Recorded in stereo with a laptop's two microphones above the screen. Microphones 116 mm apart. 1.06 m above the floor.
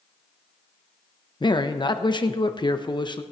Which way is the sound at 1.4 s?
40° left (ahead or behind).